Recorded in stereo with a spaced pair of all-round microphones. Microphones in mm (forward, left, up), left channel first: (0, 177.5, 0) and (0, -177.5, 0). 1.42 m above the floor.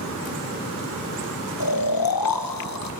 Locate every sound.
1.6 s snoring: 70° left (ahead or behind), 0.9 m